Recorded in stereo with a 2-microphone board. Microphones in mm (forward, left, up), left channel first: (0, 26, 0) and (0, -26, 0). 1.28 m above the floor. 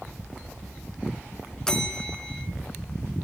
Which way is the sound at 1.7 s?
10° left (ahead or behind).